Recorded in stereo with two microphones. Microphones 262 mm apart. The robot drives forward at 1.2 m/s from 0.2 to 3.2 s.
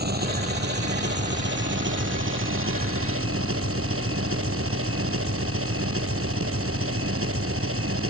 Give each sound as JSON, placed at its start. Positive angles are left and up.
{"t": 0.0, "sound": "an engine running", "side_deg": -40}